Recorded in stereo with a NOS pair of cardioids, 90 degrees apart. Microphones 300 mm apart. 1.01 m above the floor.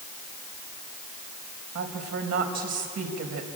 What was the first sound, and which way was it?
A woman speaking, 55° right.